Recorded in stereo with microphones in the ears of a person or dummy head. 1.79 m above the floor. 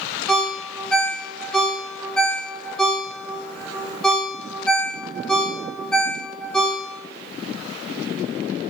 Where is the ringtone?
5° left (ahead or behind), 1.2 m.